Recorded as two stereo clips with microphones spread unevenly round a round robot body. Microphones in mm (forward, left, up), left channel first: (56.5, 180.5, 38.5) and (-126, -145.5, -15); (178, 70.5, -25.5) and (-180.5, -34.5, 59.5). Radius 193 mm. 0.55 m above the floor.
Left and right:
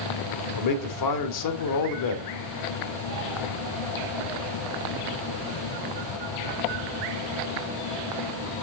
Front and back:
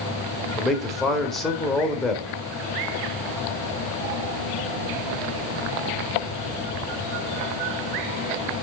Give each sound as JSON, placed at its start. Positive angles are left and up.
{"t": 0.6, "sound": "a man speaking", "azimuth_deg": 100, "distance_m": 1.4}